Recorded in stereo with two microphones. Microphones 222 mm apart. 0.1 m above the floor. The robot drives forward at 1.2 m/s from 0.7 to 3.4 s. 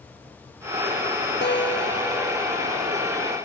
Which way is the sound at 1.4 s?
50° left (ahead or behind).